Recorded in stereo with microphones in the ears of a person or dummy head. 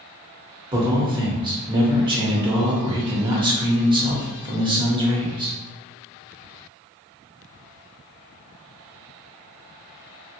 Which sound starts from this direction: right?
A man speaking, at 0.7 s.